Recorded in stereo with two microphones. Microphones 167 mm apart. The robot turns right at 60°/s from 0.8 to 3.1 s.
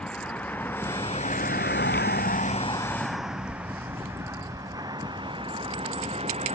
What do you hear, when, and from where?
0.0 s a vehicle: 5° left (ahead or behind); by 6.5 s 40° right (ahead or behind)